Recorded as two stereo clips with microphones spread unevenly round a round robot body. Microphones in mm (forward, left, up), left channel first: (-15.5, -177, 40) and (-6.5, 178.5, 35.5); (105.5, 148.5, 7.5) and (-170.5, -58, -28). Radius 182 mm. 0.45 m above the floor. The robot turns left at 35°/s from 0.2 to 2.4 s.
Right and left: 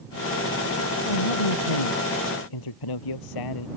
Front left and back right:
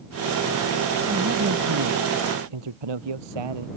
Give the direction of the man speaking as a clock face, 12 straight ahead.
2 o'clock.